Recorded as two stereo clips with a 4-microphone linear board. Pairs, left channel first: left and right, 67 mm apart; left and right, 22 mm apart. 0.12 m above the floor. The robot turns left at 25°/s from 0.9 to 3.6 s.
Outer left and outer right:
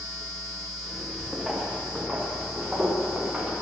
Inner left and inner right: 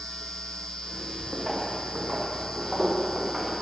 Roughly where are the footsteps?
Centre.